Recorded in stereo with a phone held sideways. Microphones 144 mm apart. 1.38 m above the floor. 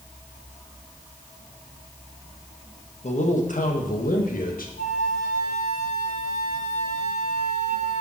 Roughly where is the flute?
Left.